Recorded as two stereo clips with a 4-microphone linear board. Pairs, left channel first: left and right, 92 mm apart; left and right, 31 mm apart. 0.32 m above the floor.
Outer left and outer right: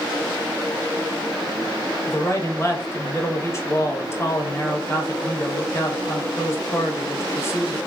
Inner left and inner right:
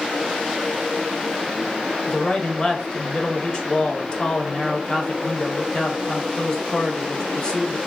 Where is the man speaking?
30° left (ahead or behind), 0.9 m.